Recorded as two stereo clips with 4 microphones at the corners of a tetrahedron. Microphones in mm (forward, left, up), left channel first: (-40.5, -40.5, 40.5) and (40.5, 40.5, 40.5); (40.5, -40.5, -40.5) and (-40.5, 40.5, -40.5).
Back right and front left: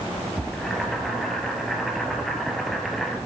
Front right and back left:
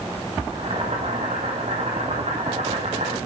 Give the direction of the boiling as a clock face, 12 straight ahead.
7 o'clock.